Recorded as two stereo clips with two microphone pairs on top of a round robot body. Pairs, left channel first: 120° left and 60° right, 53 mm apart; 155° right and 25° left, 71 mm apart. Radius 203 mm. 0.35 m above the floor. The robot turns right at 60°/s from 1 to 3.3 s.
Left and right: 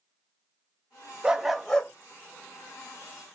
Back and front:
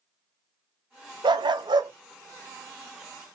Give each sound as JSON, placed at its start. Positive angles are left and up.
{"t": 1.2, "sound": "a dog barking", "azimuth_deg": 10, "distance_m": 0.5}